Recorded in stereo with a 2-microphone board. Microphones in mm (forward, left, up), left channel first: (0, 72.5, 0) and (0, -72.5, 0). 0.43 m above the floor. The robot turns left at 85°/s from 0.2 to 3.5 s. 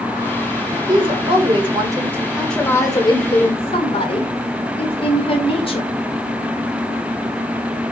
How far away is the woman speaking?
About 1.6 m.